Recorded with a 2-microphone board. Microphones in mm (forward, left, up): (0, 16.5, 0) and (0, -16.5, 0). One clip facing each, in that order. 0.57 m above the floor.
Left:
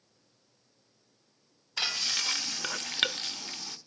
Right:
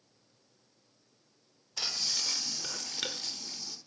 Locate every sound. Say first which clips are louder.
1.8 s frying: left 4 dB; 50° left (ahead or behind), 1.1 m